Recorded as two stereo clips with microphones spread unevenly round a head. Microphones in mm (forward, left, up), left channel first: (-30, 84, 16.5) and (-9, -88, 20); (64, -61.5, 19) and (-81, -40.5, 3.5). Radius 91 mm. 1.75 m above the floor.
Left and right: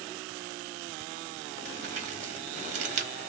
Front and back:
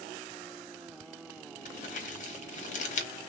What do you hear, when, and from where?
1.6 s crumpling: 35° right, 1.0 m